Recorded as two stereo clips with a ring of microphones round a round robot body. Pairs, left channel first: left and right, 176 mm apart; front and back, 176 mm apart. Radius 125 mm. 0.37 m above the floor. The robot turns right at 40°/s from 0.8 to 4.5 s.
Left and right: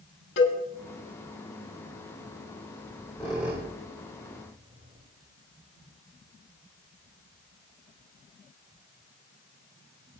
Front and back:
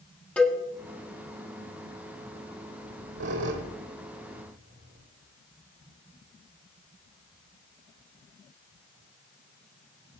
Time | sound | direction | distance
0.4 | a cowbell | 85° left | 7 m
2.8 | a squeak | 160° left | 4 m